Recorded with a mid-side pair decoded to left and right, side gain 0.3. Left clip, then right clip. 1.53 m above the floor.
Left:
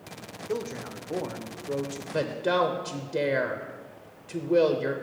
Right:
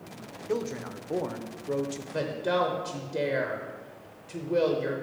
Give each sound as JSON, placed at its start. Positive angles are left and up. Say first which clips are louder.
{"t": 0.5, "sound": "a man speaking", "louder": "right 1 dB", "azimuth_deg": -15, "distance_m": 0.7}
{"t": 2.1, "sound": "a woman speaking", "louder": "left 2 dB", "azimuth_deg": 45, "distance_m": 0.7}